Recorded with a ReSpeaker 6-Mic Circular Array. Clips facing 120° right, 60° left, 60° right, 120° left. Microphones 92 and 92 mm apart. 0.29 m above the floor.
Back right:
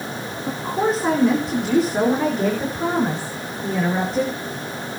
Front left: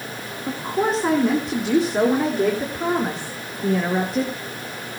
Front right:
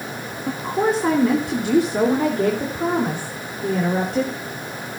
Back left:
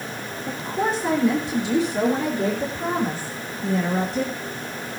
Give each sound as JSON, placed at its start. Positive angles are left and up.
{"t": 0.5, "sound": "a woman speaking", "azimuth_deg": -30, "distance_m": 3.5}